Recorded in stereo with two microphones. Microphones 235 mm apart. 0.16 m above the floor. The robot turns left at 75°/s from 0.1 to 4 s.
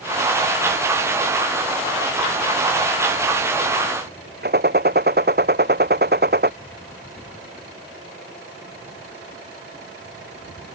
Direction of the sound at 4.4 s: 45° right (ahead or behind).